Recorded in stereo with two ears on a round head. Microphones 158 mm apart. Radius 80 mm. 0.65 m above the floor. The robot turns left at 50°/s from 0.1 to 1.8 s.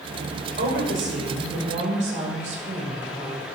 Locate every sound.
0.6 s a woman speaking: 70° right, 2.0 m; by 3.5 s 135° right, 2.0 m